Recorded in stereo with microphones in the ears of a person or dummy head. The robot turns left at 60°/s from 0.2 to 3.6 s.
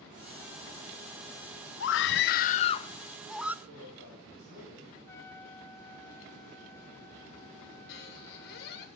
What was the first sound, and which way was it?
A scream, 90° left.